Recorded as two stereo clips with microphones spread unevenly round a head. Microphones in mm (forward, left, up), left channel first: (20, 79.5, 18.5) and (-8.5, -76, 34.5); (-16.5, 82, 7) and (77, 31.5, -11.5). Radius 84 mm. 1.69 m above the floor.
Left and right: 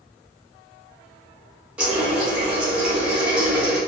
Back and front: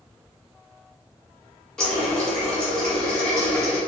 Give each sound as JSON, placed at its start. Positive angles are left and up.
{"t": 1.8, "sound": "a running tap", "azimuth_deg": -160, "distance_m": 0.7}